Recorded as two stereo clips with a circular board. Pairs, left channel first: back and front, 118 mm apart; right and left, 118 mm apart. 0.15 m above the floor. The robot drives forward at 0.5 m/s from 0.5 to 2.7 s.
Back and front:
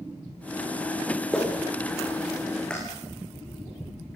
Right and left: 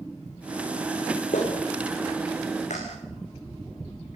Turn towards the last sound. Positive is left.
turn(degrees=-100)